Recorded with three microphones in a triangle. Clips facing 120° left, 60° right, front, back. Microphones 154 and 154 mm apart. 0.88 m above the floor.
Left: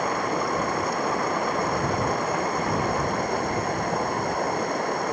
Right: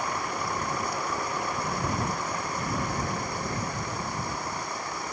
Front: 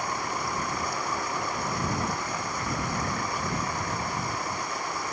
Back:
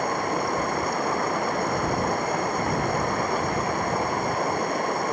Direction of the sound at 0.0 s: 145° left.